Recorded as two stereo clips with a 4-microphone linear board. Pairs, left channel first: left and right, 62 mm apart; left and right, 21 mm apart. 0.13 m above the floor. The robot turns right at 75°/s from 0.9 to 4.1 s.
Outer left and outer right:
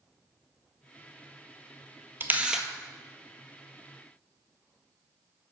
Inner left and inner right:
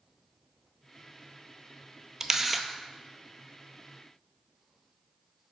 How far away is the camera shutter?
About 0.7 m.